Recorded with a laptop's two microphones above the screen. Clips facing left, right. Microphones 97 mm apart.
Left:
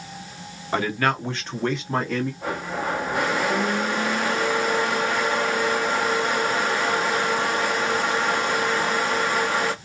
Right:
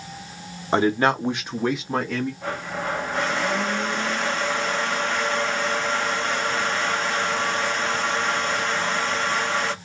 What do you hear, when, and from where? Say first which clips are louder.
0.7 s a man speaking: right 4 dB; 30° right (ahead or behind), 0.8 m; by 2.3 s centre (ahead or behind), 1.3 m
2.4 s a blender: left 1 dB; 10° left (ahead or behind), 1.1 m